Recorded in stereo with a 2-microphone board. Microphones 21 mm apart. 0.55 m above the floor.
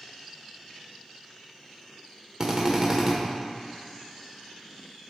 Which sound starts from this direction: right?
A drill, at 2.4 s.